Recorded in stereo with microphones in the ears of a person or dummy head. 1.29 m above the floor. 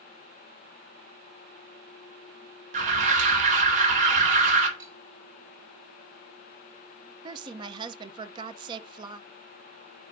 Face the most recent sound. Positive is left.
turn(degrees=-30)  # may be behind; listen again after turning